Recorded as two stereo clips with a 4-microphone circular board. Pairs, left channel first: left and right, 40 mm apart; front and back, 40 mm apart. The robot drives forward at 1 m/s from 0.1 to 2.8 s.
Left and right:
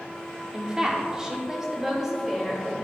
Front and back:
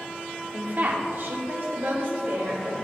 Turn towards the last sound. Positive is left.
turn(degrees=-170)